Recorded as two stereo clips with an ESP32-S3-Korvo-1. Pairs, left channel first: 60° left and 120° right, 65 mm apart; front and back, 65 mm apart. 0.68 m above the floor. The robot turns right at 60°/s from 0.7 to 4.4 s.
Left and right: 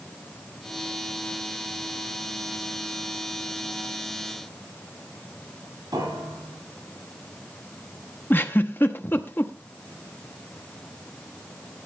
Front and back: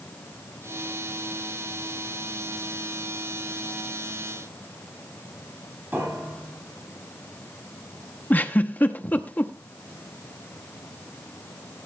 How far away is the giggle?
About 0.8 m.